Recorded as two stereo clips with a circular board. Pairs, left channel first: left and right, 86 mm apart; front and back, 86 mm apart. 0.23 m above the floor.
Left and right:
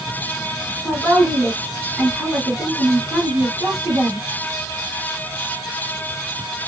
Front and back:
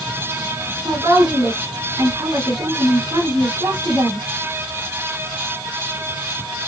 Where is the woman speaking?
170° right, 1.9 m.